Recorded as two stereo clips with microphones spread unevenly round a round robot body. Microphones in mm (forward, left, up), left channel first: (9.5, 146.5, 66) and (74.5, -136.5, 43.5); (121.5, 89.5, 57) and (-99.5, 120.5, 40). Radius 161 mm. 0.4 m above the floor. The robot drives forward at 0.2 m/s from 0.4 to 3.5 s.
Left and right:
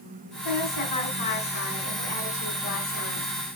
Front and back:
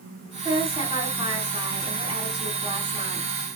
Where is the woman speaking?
105° left, 3.5 m; by 3.3 s 110° left, 3.5 m.